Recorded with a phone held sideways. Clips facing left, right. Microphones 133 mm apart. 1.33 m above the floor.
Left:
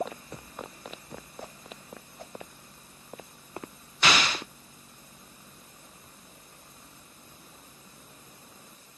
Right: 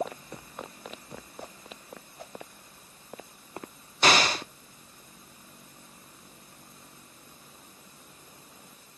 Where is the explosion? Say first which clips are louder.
Right 3 dB; 40° right (ahead or behind), 0.7 m.